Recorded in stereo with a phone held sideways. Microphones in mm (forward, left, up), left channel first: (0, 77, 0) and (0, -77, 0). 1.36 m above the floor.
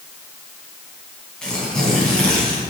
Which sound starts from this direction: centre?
Tearing paper, at 1.4 s.